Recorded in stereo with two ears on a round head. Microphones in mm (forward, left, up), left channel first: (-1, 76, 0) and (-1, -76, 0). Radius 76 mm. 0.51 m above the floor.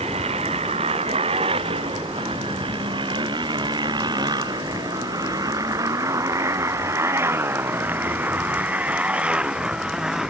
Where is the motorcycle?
35° right (ahead or behind); by 10.3 s 5° right (ahead or behind).